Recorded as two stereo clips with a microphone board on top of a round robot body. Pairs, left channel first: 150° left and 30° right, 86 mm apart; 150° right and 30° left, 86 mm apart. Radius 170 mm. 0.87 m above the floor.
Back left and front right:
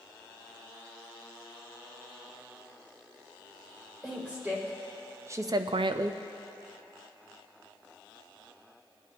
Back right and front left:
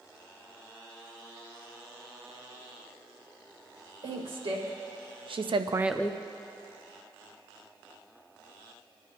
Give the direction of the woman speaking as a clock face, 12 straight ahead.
11 o'clock.